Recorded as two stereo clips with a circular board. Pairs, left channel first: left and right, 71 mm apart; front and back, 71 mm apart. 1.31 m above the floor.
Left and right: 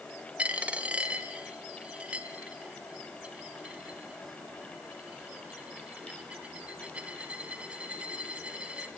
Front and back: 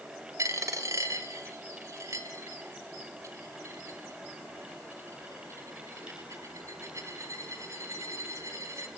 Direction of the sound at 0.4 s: 155° right.